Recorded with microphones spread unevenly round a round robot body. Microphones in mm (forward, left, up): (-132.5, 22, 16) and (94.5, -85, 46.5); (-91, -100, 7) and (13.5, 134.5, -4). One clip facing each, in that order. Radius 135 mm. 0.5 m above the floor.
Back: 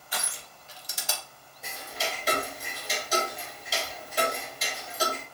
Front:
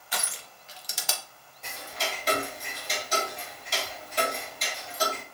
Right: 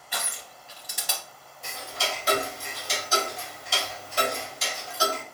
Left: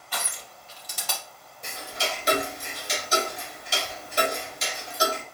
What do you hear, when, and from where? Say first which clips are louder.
0.1 s crushing: front 1 dB, left 1 dB; 40° right, 0.5 m
1.6 s ticking: back 1 dB, left 1 dB; 100° left, 0.8 m